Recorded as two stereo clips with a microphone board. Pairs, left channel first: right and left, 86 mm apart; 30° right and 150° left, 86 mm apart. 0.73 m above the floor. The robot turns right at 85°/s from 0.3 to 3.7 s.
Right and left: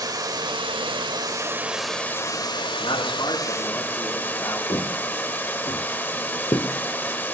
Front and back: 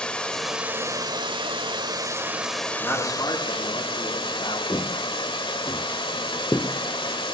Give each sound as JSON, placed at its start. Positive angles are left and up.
{"t": 0.0, "sound": "running water", "azimuth_deg": 50, "distance_m": 1.5}
{"t": 2.8, "sound": "a man speaking", "azimuth_deg": -110, "distance_m": 7.5}
{"t": 4.7, "sound": "footsteps", "azimuth_deg": -65, "distance_m": 4.0}